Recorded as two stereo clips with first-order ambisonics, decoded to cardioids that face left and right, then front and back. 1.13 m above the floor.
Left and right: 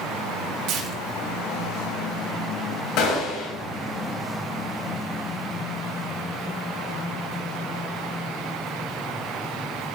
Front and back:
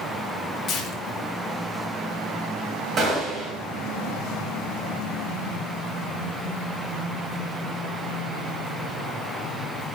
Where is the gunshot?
120° left, 2 m.